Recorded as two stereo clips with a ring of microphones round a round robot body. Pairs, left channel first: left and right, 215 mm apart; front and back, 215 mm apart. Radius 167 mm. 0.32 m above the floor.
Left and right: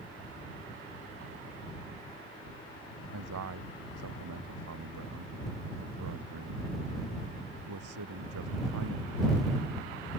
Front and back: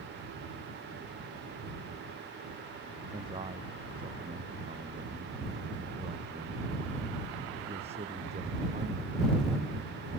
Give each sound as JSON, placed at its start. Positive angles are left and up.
{"t": 3.1, "sound": "a man speaking", "azimuth_deg": -105}